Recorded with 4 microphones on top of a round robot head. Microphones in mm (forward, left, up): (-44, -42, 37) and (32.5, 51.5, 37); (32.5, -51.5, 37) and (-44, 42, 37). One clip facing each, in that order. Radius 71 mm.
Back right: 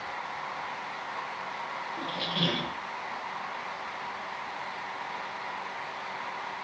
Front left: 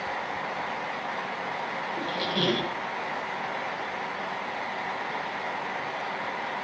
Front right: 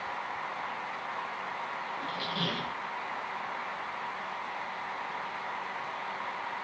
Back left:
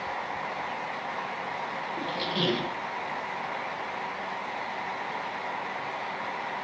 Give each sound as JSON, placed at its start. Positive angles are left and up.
{"t": 2.0, "sound": "a squeak", "azimuth_deg": 95, "distance_m": 0.6}